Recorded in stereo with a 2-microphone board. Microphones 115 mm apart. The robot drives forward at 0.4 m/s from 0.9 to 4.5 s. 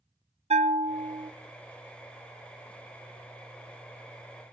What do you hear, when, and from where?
0.5 s a bell: 70° right (ahead or behind), 0.5 m; by 1.3 s 55° right (ahead or behind), 0.6 m